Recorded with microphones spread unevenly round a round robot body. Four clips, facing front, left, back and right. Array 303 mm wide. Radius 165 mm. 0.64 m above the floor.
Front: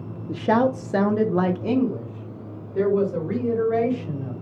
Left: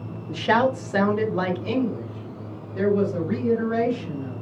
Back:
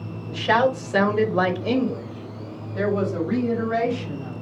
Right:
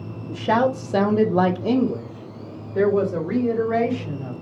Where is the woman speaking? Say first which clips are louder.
Right 1 dB, even; straight ahead, 1.3 m; by 4.3 s 95° right, 4 m.